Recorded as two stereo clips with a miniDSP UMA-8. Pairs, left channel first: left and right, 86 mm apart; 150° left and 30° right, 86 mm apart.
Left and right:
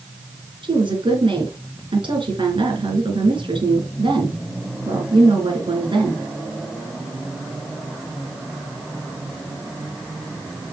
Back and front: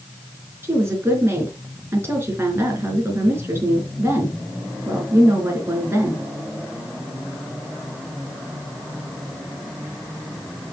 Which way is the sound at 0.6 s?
90° right.